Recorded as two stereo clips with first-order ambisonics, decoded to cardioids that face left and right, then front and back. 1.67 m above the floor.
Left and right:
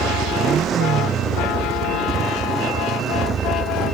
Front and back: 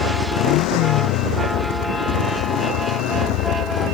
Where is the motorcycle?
25° right.